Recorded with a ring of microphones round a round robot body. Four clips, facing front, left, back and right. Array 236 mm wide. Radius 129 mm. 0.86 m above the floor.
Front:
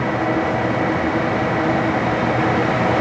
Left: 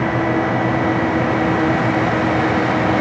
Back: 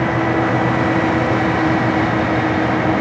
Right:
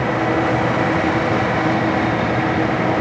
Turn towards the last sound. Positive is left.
No sound to turn to.